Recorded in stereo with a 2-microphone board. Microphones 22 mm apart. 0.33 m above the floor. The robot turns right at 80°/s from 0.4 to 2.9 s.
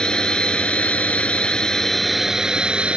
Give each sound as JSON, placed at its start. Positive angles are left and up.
{"t": 0.0, "sound": "a drone", "azimuth_deg": 45}